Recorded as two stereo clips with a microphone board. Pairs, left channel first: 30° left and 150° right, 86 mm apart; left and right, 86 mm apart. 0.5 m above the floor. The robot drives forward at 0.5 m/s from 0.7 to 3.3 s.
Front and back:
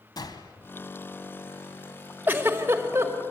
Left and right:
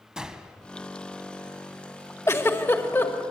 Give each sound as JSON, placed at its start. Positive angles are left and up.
{"t": 0.2, "sound": "a gunshot", "azimuth_deg": -10, "distance_m": 1.5}
{"t": 2.3, "sound": "a giggle", "azimuth_deg": 145, "distance_m": 1.6}